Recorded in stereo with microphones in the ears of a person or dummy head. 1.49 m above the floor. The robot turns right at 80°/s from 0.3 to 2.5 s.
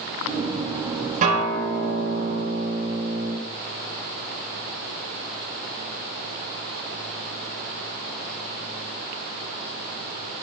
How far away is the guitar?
About 6 m.